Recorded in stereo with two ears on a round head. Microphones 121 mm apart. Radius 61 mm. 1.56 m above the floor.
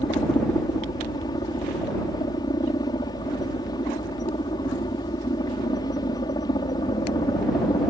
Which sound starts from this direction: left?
A helicopter, at 0.0 s.